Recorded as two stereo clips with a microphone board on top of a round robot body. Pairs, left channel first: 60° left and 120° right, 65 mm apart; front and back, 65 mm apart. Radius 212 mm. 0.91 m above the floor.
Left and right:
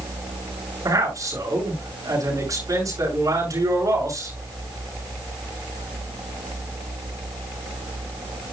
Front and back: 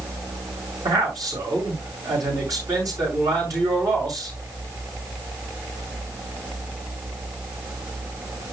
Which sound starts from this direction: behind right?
A man speaking, at 0.8 s.